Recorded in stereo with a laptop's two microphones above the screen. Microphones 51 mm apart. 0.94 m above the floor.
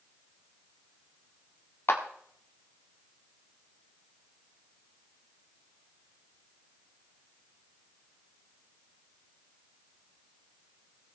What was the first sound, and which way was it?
A clap, 55° left (ahead or behind).